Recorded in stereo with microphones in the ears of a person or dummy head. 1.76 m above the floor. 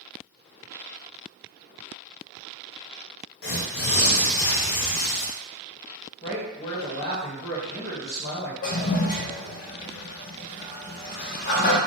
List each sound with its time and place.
3.4 s tearing paper: 55° left (ahead or behind), 0.6 m
6.2 s a man speaking: 30° left (ahead or behind), 1.1 m
8.6 s a toilet flushing: 40° left (ahead or behind), 0.7 m